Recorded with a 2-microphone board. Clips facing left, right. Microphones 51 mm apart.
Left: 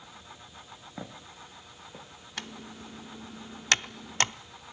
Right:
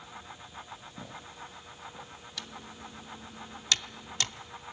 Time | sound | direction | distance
1.0 | footsteps | 85° left | 6 m
2.4 | typing on a keyboard | 50° left (ahead or behind) | 0.5 m